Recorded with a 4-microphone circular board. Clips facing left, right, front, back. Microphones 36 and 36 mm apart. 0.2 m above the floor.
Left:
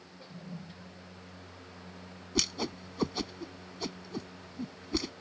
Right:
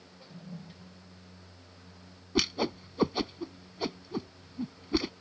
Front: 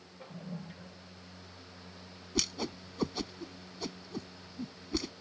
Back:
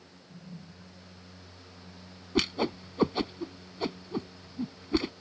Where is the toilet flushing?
10° left.